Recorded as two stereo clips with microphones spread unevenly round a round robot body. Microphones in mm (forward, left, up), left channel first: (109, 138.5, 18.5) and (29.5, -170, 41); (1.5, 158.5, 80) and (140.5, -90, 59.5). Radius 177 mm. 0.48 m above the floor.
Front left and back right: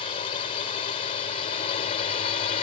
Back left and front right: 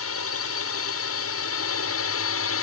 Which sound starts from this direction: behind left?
A drone, at 0.0 s.